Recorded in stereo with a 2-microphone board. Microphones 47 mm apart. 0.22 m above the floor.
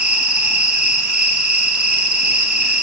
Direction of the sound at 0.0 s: 30° right (ahead or behind).